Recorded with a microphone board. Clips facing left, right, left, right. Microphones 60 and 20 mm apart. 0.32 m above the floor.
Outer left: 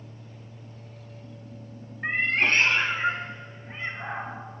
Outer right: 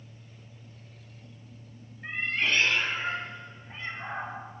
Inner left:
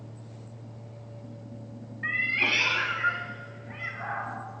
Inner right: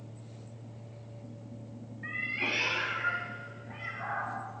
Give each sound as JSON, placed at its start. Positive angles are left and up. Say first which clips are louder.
{"t": 2.0, "sound": "a cat meowing", "louder": "outer left 5 dB, inner left 7 dB", "side_deg": 55, "distance_m": 0.7}